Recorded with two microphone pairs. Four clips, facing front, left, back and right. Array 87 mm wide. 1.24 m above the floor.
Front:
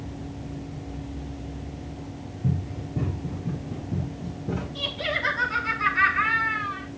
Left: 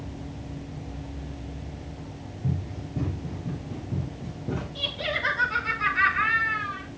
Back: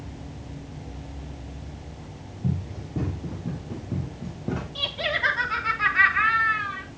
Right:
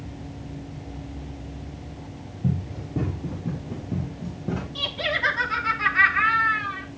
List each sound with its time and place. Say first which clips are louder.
2.4 s running footsteps: right 4 dB, front 1 dB; 115° right, 4 m; by 4.7 s 150° right, 4.5 m
4.8 s laughter: right 3 dB, back 1 dB; 140° right, 3.5 m